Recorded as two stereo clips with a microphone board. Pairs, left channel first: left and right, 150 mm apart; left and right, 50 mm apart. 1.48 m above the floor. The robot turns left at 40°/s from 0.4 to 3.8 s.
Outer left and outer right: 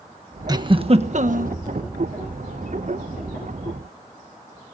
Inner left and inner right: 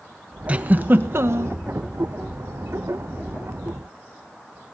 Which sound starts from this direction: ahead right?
A giggle, at 0.5 s.